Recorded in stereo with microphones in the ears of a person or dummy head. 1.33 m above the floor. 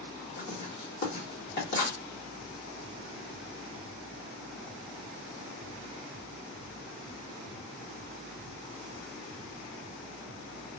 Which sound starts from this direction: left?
Writing, at 0.4 s.